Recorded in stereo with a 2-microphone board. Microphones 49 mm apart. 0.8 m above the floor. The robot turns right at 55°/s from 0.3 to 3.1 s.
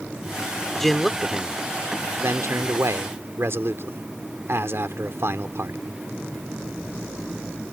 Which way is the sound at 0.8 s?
10° left (ahead or behind).